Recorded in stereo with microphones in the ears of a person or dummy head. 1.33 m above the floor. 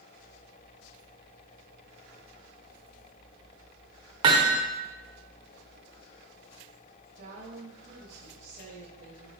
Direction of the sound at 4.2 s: 25° right (ahead or behind).